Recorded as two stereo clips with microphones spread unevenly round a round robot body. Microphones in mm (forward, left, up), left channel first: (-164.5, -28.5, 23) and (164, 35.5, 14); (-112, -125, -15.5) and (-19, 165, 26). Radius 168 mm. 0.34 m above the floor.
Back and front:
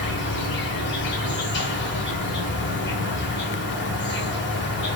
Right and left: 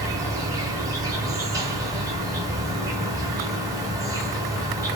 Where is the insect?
155° left, 0.8 m.